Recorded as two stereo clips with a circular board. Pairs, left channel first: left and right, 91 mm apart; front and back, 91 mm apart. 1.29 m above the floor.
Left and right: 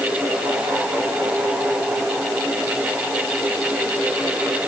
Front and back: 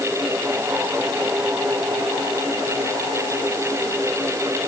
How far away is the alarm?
No alarm in this recording.